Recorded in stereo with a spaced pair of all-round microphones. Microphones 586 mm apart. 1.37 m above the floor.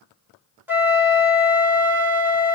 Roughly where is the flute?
Centre.